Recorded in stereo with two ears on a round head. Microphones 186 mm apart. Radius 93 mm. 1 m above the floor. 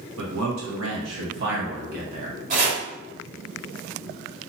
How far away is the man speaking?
About 1.2 m.